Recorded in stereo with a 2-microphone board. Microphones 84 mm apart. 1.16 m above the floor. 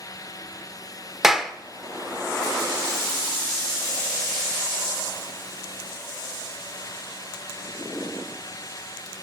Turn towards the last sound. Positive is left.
turn(degrees=-5)  # may be behind; listen again after turning